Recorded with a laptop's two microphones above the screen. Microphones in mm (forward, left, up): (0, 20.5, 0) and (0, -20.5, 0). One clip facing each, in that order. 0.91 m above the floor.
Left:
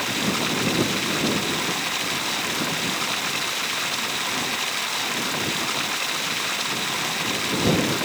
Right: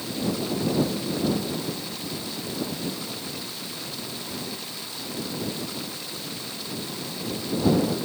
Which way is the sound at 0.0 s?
70° left (ahead or behind).